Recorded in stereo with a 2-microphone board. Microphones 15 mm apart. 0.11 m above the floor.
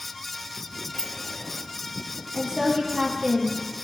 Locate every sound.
0.9 s a sliding door: 40° left (ahead or behind), 0.7 m
2.3 s a woman speaking: 60° right (ahead or behind), 3 m